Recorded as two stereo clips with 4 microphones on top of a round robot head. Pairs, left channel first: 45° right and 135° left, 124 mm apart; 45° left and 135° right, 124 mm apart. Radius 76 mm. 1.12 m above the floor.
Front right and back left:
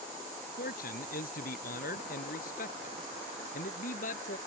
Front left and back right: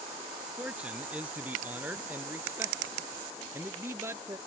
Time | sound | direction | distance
0.6 | a man speaking | 55° right | ?